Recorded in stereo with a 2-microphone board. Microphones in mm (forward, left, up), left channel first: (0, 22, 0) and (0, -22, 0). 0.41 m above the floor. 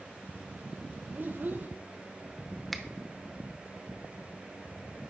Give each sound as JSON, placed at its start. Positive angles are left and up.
{"t": 1.1, "sound": "a child speaking", "side_deg": -50, "distance_m": 0.5}
{"t": 2.7, "sound": "a finger snap", "side_deg": 0, "distance_m": 0.6}